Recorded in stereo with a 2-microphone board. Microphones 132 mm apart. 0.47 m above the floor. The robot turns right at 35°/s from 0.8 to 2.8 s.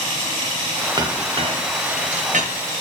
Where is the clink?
30° right (ahead or behind), 1.1 m; by 2.5 s 70° right (ahead or behind), 1.1 m.